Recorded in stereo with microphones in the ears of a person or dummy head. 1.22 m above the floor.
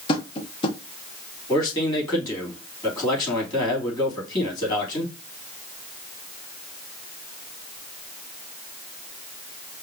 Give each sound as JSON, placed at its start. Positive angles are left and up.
{"t": 0.1, "sound": "tapping", "side_deg": 30, "distance_m": 0.7}
{"t": 1.5, "sound": "a man speaking", "side_deg": 20, "distance_m": 2.5}